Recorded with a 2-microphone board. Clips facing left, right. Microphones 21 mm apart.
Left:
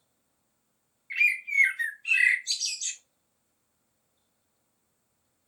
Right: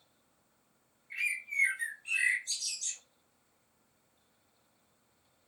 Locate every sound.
1.1 s a bird: 50° left (ahead or behind), 0.7 m